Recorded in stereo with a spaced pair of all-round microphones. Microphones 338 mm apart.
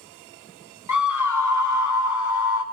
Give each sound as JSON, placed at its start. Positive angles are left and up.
{"t": 0.9, "sound": "a scream", "side_deg": 65, "distance_m": 0.5}